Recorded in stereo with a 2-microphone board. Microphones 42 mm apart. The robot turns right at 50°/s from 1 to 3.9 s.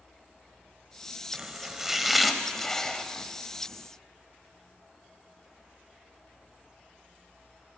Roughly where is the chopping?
Right.